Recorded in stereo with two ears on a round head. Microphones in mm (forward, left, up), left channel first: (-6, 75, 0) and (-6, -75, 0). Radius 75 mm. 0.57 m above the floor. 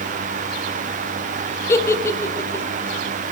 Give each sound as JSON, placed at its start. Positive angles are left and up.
{"t": 1.7, "sound": "a giggle", "side_deg": 15, "distance_m": 0.8}